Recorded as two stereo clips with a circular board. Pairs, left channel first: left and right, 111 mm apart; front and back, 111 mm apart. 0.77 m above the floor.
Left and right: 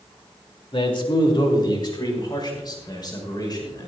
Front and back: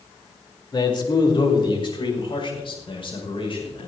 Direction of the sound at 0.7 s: 50° left.